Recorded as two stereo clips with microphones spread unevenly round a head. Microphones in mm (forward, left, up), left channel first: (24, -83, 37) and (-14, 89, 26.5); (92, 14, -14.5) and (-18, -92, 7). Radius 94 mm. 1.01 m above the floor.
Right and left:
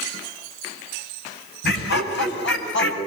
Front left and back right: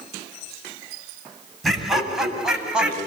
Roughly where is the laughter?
Ahead right.